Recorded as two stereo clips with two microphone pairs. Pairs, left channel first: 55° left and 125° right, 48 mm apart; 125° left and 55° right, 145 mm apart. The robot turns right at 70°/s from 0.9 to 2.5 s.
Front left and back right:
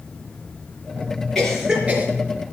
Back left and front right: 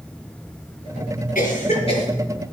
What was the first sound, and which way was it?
A cough, 135° left.